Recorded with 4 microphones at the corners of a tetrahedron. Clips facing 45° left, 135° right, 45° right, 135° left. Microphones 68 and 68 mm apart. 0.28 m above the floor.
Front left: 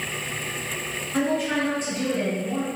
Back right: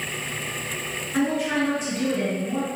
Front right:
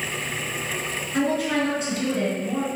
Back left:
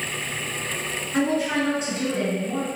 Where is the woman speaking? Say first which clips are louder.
Back right 1 dB, even; 155° left, 1.6 m.